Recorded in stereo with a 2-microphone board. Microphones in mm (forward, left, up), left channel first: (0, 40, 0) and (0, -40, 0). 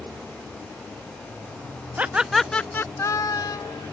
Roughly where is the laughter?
Centre.